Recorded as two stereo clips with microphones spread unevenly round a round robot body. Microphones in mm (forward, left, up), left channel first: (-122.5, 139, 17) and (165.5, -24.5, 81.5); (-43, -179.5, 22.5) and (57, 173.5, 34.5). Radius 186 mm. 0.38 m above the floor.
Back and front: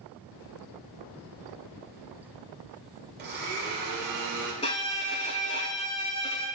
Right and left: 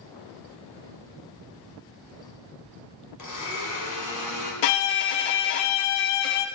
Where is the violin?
130° right, 0.7 m.